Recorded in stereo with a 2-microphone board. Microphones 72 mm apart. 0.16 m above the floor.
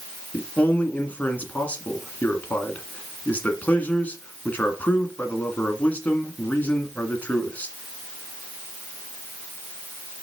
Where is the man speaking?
25° left (ahead or behind), 1.5 m.